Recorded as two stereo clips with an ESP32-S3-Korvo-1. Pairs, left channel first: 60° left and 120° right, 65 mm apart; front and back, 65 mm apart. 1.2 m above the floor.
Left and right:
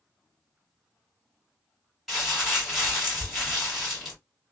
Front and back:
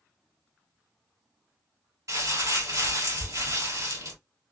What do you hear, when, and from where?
2.1 s crumpling: 150° left, 1.8 m